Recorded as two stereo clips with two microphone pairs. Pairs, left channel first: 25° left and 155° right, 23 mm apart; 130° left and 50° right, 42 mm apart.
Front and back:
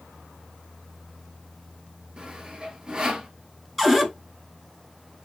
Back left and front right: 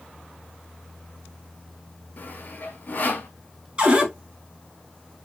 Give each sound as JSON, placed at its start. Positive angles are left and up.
{"t": 2.2, "sound": "sawing", "azimuth_deg": 160, "distance_m": 0.8}
{"t": 3.8, "sound": "a cupboard door", "azimuth_deg": -65, "distance_m": 1.0}